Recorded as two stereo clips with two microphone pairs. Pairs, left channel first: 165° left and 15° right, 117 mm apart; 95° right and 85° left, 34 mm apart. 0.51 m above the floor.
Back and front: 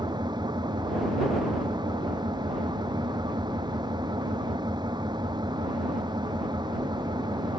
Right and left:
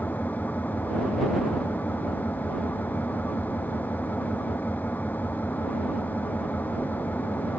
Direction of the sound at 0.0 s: 65° right.